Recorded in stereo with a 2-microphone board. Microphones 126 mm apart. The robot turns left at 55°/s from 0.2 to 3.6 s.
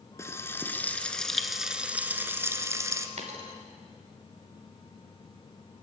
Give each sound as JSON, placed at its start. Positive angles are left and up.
{"t": 0.2, "sound": "frying", "side_deg": 20, "distance_m": 1.5}
{"t": 3.2, "sound": "a dropped coin", "side_deg": -65, "distance_m": 3.5}